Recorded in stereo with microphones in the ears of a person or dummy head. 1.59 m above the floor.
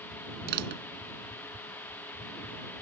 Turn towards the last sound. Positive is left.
turn(degrees=-60)  # may be behind; listen again after turning